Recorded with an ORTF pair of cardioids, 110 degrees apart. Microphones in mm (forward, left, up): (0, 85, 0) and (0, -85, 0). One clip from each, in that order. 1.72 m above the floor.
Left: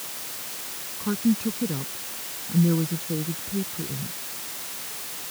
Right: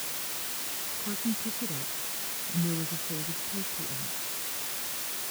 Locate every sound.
1.0 s a woman speaking: 55° left